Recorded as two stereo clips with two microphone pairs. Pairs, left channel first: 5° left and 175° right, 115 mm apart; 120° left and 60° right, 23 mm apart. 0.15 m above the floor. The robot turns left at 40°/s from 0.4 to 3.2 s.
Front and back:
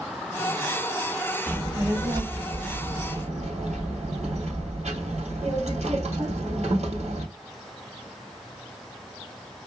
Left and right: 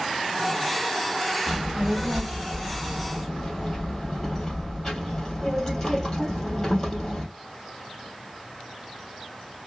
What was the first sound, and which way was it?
A child speaking, 100° right.